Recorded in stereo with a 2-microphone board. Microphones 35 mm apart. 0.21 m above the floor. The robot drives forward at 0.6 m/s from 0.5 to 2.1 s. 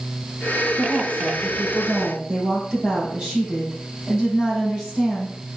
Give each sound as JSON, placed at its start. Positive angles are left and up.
{"t": 0.8, "sound": "a woman speaking", "side_deg": -40, "distance_m": 5.0}